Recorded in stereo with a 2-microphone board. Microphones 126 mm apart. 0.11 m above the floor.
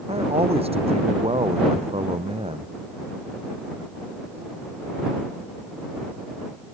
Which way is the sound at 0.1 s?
50° right (ahead or behind).